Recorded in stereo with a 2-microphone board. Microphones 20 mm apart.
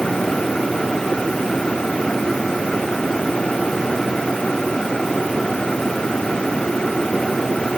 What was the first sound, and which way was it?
Only background noise.